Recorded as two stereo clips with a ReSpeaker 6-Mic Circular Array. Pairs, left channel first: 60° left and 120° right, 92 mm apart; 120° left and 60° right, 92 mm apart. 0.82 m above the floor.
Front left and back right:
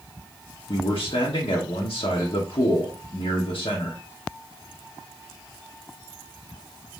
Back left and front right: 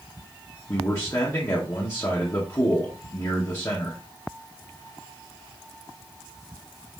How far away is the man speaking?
About 1.2 m.